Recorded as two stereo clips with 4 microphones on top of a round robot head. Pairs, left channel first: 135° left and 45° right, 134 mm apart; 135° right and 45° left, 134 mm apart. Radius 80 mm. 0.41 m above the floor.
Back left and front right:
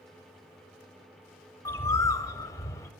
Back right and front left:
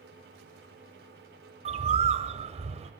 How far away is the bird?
About 0.6 m.